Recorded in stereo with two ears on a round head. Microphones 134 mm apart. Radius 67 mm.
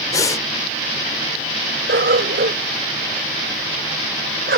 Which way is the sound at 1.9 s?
70° right (ahead or behind).